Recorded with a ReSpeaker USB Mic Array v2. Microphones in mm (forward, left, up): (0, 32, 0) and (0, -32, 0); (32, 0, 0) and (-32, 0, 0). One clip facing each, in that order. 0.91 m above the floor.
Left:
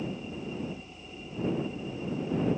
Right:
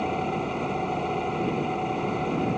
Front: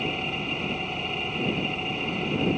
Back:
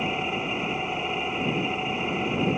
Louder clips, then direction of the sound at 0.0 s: Right 10 dB, back 2 dB; 110° right.